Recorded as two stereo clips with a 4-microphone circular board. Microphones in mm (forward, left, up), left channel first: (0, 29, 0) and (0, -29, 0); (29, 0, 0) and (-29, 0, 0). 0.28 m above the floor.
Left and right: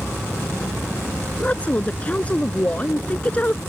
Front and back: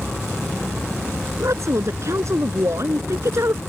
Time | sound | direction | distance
1.4 | a woman speaking | 155° left | ?